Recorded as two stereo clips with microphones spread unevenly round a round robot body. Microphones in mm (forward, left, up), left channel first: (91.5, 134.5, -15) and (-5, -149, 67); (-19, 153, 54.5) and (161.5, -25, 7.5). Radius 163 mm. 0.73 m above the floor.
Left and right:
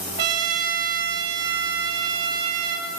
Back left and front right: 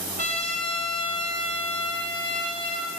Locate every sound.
0.2 s a trumpet: 115° right, 3 m